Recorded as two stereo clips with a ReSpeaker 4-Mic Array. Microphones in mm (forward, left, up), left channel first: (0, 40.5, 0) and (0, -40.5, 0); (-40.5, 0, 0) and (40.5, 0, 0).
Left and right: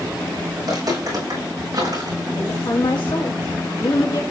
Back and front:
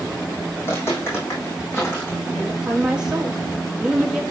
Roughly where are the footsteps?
Behind right.